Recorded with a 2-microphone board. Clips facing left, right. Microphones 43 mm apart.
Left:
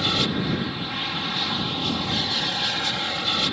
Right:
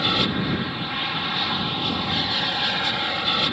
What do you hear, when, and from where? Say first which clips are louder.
0.0 s an aircraft: right 1 dB; 15° right (ahead or behind)